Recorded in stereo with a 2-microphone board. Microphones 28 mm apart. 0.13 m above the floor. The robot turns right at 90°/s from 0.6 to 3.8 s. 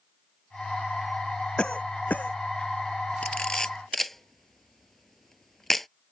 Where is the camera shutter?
50° left (ahead or behind); by 5.9 s 5° left (ahead or behind).